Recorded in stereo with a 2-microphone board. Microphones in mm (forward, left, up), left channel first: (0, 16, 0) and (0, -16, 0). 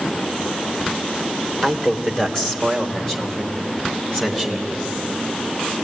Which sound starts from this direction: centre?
A man speaking, at 1.6 s.